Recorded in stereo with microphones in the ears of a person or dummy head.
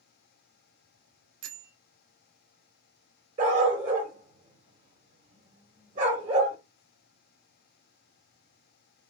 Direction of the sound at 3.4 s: 35° right (ahead or behind).